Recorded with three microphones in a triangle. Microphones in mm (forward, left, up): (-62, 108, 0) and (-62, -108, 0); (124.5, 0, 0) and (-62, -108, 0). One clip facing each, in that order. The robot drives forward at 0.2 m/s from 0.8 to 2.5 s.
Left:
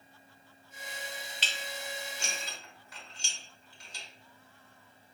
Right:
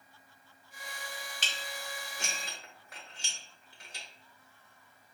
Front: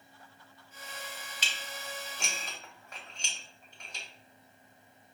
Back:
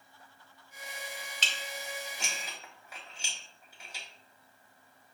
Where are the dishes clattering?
50° right, 0.7 m; by 4.0 s 65° right, 0.6 m.